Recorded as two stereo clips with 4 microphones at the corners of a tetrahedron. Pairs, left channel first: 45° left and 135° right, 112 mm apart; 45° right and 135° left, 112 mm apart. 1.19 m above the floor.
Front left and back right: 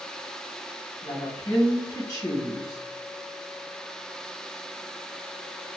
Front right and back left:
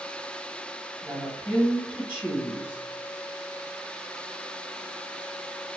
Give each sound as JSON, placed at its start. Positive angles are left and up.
{"t": 1.0, "sound": "a woman speaking", "azimuth_deg": 70, "distance_m": 1.2}